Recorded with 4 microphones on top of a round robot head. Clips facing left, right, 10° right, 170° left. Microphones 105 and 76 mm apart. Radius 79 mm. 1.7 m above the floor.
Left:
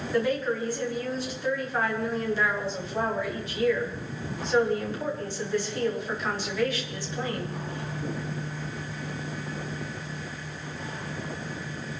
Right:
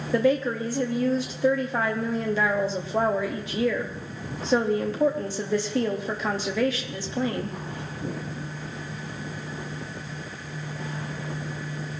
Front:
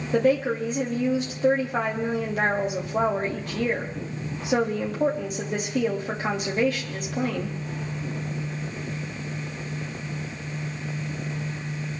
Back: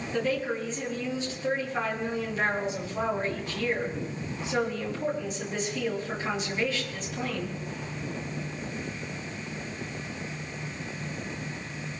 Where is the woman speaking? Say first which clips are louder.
Right 4 dB, front 8 dB; 65° right, 3 m.